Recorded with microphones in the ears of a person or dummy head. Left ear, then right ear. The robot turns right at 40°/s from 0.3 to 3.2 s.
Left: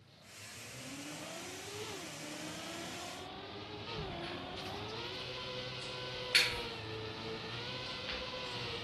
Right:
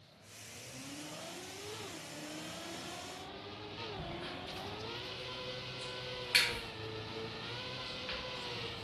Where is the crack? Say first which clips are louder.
Left 1 dB; 10° right (ahead or behind), 1.6 m.